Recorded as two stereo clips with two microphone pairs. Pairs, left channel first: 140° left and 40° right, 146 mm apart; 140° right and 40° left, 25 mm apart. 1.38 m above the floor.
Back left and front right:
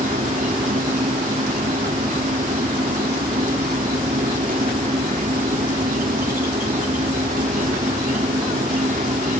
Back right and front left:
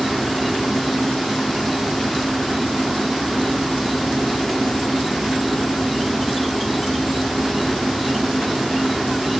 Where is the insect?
50° right.